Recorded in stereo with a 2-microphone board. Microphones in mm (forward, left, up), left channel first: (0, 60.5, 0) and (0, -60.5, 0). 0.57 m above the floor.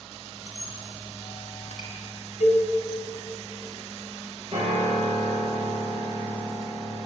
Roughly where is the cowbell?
Left.